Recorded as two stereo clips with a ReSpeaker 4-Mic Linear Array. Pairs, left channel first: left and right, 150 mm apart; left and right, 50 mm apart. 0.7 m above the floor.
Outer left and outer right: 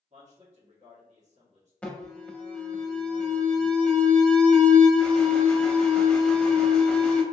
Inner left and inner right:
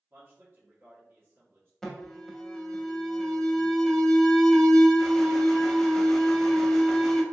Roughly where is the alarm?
Centre.